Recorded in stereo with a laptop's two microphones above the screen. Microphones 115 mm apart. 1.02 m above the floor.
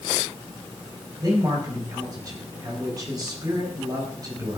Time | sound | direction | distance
1.2 | a man speaking | 35° right (ahead or behind) | 4.5 m